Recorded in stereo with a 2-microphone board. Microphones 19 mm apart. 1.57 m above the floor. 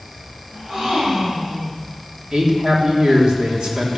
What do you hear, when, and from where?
0.5 s a gasp: 60° right (ahead or behind), 9 m
2.3 s a man speaking: 55° right (ahead or behind), 4 m